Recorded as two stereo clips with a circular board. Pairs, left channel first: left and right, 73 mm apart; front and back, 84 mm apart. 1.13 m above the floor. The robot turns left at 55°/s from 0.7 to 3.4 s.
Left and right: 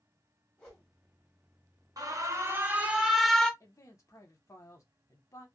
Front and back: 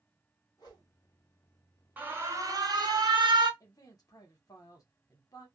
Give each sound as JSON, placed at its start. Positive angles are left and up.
{"t": 0.6, "sound": "a whoosh", "azimuth_deg": 15, "distance_m": 1.3}
{"t": 2.0, "sound": "an alarm", "azimuth_deg": -110, "distance_m": 0.7}
{"t": 3.6, "sound": "a man speaking", "azimuth_deg": 45, "distance_m": 1.0}